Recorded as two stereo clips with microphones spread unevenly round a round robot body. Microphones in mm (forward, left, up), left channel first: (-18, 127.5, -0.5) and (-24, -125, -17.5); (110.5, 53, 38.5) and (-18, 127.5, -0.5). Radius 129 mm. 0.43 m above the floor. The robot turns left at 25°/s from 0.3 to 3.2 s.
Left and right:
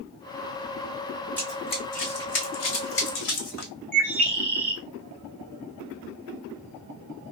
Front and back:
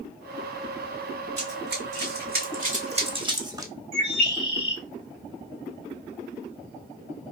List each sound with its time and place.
1.4 s running footsteps: 170° left, 2.0 m; by 3.7 s 75° left, 1.5 m
3.9 s a bird: 175° left, 2.5 m